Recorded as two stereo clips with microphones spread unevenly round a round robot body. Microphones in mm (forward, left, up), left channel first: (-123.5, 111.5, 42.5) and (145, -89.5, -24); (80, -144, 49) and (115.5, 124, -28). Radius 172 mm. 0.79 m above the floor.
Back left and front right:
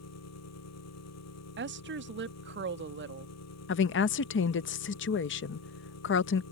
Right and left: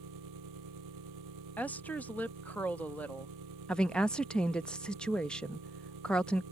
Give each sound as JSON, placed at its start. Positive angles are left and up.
{"t": 0.0, "sound": "an engine running", "azimuth_deg": 100}
{"t": 1.6, "sound": "a woman speaking", "azimuth_deg": 0}
{"t": 3.7, "sound": "a woman speaking", "azimuth_deg": 135}